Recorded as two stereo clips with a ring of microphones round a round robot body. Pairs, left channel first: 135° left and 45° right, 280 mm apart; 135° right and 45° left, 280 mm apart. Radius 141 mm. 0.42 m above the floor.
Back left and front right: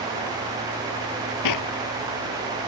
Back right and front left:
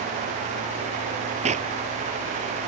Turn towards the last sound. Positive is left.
turn(degrees=115)